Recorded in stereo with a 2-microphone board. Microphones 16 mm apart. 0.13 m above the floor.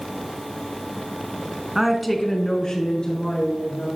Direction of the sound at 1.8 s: 20° right (ahead or behind).